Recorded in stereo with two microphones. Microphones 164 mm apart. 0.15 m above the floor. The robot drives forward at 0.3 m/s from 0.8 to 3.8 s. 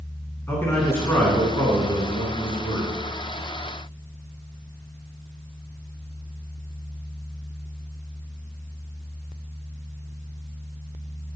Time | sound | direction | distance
0.5 | a man speaking | 20° left (ahead or behind) | 1.7 m